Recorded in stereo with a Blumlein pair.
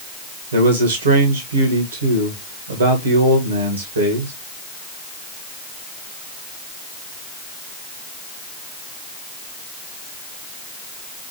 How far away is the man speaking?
About 1.8 m.